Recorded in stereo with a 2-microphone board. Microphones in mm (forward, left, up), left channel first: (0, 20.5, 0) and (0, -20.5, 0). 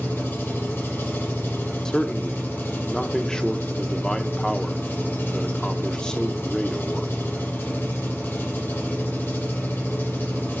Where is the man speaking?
15° left (ahead or behind), 0.8 m.